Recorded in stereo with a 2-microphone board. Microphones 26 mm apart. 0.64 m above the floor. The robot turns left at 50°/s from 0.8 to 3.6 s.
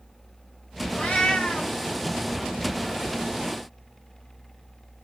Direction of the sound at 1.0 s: 80° left.